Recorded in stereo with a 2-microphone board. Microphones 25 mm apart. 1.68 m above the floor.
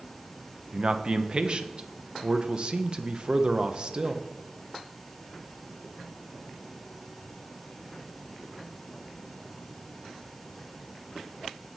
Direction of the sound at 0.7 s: 35° right (ahead or behind).